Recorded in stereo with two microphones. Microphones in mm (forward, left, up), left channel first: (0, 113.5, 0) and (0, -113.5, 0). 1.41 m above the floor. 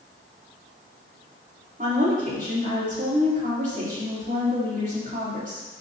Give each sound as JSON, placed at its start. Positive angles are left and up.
{"t": 1.8, "sound": "a woman speaking", "side_deg": -35, "distance_m": 3.0}